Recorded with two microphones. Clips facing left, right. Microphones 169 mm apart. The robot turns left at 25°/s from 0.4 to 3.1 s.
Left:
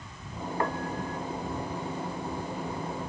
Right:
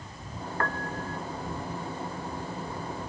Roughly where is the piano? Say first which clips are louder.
Left 2 dB; centre.